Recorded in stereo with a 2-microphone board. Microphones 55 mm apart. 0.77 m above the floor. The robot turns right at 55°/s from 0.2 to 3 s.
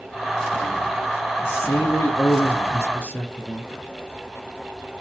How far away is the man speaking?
About 0.9 m.